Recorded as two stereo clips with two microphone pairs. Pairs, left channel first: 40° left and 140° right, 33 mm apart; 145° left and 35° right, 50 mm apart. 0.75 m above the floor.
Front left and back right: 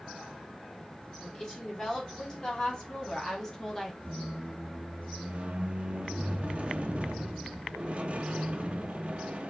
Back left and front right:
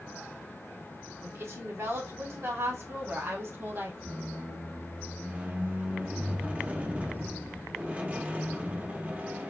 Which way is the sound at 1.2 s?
25° right.